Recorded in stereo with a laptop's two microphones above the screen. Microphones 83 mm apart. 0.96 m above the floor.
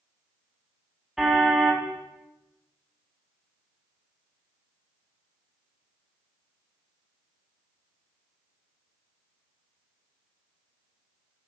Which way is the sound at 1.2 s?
5° right (ahead or behind).